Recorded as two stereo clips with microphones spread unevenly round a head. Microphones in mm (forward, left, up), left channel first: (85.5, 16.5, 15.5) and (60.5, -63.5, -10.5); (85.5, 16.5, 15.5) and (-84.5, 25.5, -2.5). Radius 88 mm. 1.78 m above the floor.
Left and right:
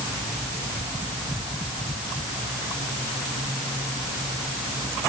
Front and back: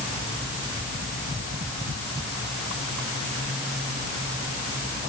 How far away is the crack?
I don't hear a crack.